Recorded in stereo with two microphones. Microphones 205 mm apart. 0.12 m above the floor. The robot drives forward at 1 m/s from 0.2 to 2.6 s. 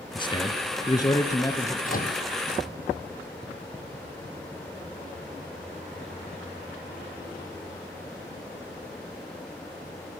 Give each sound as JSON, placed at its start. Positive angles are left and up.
{"t": 0.1, "sound": "a man speaking", "side_deg": 25, "distance_m": 1.5}
{"t": 1.8, "sound": "a microwave", "side_deg": 40, "distance_m": 3.5}